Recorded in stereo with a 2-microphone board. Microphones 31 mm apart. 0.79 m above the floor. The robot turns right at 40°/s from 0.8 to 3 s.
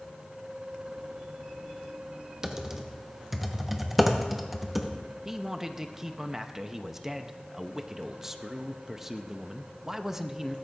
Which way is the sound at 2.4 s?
25° right (ahead or behind).